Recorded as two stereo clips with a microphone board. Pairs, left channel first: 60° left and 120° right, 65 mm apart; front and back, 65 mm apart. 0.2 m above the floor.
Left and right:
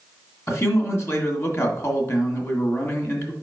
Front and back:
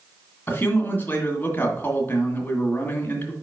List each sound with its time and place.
0.5 s a man speaking: 45° left, 1.9 m